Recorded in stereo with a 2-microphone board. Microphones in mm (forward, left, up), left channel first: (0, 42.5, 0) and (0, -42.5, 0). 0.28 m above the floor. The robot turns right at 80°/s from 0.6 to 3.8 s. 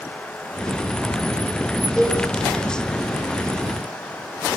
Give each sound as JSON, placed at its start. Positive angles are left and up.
{"t": 2.0, "sound": "a cowbell", "side_deg": 5, "distance_m": 8.5}